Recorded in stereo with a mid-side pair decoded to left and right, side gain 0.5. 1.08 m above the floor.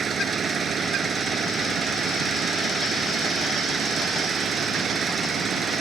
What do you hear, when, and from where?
0.0 s an engine running: 40° right